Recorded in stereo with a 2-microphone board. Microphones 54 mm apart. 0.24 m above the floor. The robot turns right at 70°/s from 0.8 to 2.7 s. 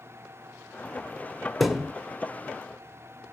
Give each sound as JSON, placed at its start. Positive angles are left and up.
{"t": 1.6, "sound": "a thud", "side_deg": 0, "distance_m": 1.0}